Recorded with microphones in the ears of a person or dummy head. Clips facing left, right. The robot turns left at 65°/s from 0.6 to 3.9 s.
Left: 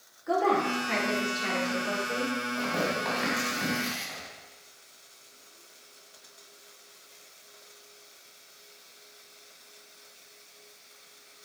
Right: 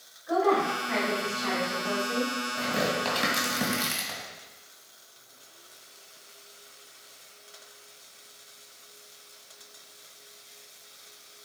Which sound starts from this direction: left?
A woman speaking, at 0.3 s.